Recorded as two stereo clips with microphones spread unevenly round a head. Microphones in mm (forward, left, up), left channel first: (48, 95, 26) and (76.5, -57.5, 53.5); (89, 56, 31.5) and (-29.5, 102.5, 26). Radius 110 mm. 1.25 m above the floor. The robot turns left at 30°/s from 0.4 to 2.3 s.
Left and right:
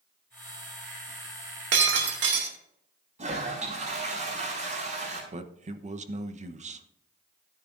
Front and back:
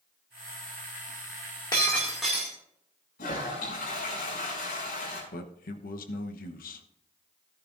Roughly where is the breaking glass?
Right.